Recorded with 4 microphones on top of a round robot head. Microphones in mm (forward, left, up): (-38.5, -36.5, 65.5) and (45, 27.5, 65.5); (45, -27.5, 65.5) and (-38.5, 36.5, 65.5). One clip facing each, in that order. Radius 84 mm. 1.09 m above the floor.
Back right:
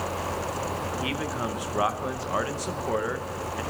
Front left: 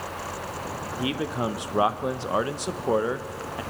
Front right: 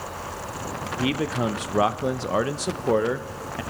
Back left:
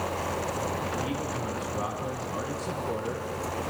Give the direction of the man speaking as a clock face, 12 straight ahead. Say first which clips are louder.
Front left 2 dB, front right 6 dB; 1 o'clock.